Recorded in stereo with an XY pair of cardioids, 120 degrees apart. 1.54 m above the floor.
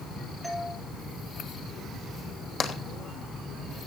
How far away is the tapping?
About 2.5 m.